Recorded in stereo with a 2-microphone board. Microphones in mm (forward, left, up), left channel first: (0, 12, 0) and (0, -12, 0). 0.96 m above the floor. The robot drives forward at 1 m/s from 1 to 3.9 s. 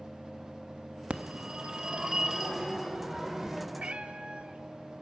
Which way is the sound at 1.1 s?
60° right (ahead or behind).